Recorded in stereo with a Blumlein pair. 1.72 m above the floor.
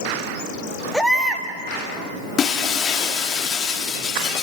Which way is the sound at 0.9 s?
Straight ahead.